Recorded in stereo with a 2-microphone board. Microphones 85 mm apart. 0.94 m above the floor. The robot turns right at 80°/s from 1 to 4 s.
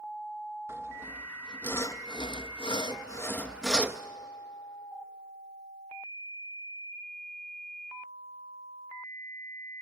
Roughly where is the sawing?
Right.